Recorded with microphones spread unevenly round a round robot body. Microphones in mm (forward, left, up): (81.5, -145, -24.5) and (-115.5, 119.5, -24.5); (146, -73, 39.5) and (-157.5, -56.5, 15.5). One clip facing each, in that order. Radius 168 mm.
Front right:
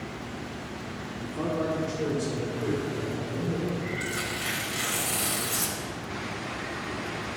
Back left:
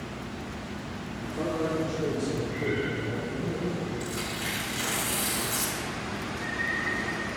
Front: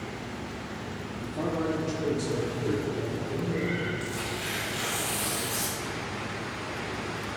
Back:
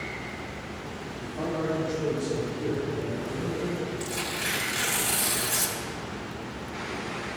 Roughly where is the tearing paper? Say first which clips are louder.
Even, back 1 dB; behind right.